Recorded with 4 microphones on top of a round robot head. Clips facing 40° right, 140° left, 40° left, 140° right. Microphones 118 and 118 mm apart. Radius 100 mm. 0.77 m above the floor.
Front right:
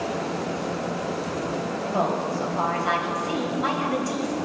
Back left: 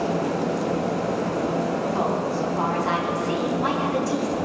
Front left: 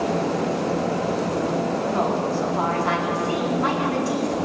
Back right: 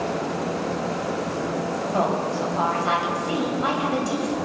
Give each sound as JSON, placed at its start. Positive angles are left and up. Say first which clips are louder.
{"t": 1.9, "sound": "a woman speaking", "louder": "back left 1 dB, back right 2 dB", "azimuth_deg": -70, "distance_m": 4.0}